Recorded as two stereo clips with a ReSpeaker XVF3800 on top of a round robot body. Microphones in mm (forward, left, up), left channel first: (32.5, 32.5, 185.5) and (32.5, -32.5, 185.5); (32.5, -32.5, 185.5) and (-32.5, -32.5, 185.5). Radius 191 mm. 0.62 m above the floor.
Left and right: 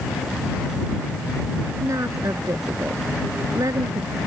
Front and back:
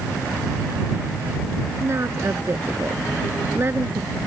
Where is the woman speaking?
130° right; by 4.2 s 125° right.